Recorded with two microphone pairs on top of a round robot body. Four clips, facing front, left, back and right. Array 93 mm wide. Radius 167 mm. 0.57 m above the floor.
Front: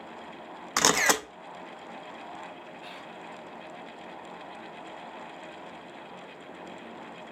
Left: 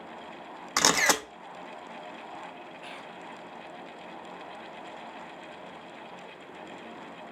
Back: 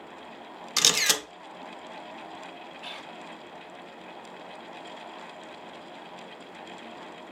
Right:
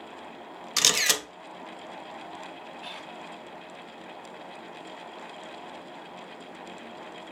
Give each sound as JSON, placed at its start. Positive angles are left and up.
{"t": 0.8, "sound": "a camera shutter", "azimuth_deg": 35, "distance_m": 0.5}
{"t": 2.8, "sound": "whispering", "azimuth_deg": 165, "distance_m": 1.0}